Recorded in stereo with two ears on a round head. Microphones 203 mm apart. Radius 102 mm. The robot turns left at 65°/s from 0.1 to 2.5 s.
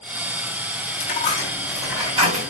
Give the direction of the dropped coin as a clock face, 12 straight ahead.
11 o'clock.